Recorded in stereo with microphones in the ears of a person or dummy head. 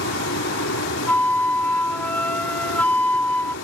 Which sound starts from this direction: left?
A fan, at 0.0 s.